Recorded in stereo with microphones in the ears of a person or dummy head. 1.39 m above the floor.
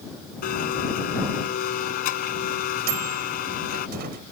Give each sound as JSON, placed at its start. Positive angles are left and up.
{"t": 0.4, "sound": "a blender", "side_deg": 50}
{"t": 2.9, "sound": "a microwave", "side_deg": -50}